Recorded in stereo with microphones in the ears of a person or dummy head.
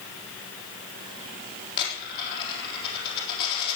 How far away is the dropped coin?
About 5.5 m.